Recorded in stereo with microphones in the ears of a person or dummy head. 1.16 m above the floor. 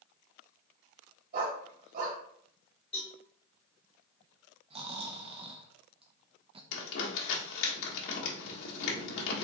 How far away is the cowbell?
About 1.9 m.